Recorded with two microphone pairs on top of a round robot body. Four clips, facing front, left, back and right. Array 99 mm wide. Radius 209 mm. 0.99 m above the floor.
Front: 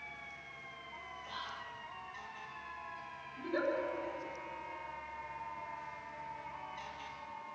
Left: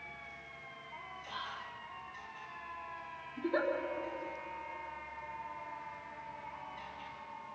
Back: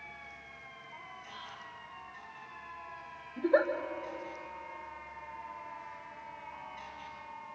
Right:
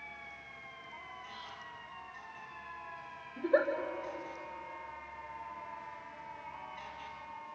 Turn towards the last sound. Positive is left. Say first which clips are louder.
# right 5 dB, back 9 dB
turn(degrees=-145)